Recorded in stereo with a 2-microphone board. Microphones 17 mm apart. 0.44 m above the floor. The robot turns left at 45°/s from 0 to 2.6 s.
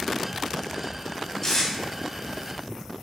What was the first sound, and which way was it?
Tape being pulled, 15° left (ahead or behind).